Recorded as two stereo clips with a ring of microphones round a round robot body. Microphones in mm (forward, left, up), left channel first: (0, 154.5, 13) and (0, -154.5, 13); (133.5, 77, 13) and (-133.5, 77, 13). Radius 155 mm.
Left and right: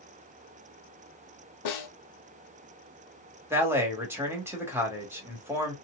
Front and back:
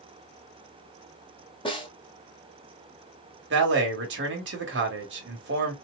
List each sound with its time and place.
1.6 s a snare drum: 70° left, 1.5 m
3.5 s a man speaking: 170° right, 1.7 m